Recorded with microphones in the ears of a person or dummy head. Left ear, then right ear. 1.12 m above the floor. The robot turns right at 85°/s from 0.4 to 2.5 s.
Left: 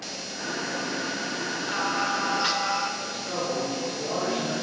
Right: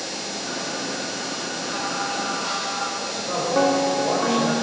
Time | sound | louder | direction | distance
1.7 | singing | left 1 dB | 15° left | 0.7 m
3.0 | a man speaking | right 4 dB | 55° right (ahead or behind) | 3.5 m